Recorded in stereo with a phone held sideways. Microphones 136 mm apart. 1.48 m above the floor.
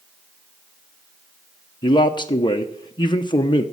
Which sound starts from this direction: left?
A man speaking, at 1.8 s.